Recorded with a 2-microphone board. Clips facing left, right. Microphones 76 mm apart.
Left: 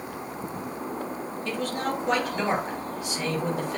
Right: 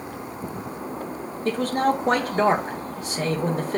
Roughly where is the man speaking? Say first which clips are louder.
Right 8 dB; right.